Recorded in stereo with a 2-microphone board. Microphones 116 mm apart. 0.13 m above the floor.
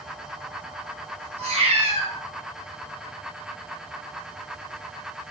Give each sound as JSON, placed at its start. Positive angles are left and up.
{"t": 1.4, "sound": "a cat meowing", "side_deg": -60, "distance_m": 1.2}